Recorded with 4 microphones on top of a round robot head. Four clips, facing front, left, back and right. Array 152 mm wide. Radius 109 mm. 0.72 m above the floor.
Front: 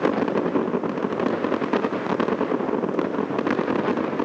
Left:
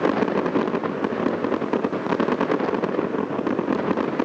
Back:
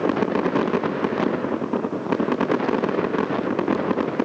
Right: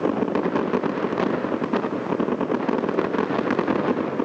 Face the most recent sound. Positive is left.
No sound to turn to.